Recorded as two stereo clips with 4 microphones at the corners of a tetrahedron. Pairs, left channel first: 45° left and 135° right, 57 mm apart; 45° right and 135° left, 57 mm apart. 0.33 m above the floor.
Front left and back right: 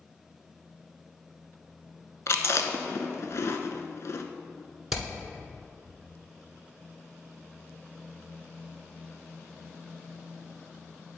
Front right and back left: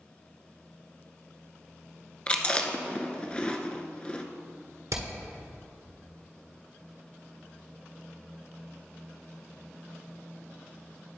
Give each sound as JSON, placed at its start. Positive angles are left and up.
{"t": 2.3, "sound": "chewing", "azimuth_deg": 20, "distance_m": 0.6}
{"t": 4.9, "sound": "hammering", "azimuth_deg": 140, "distance_m": 1.5}